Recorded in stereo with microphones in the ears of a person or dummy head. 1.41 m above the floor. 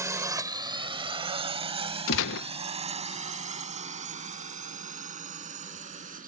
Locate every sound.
0.0 s a drone: 20° right (ahead or behind); by 6.3 s 45° right (ahead or behind)
2.1 s a gunshot: 75° left (ahead or behind)